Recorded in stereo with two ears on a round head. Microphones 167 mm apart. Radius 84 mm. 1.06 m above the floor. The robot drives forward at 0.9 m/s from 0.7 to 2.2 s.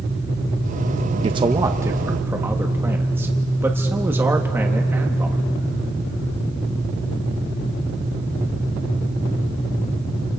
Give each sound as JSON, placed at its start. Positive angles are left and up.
{"t": 1.2, "sound": "a man speaking", "side_deg": -30, "distance_m": 0.5}